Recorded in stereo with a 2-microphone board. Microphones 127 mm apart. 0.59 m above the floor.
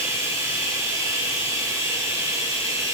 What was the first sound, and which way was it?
Running water, 20° right (ahead or behind).